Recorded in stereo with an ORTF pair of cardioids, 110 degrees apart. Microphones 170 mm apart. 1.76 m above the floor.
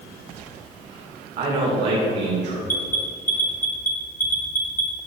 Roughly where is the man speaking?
Ahead right.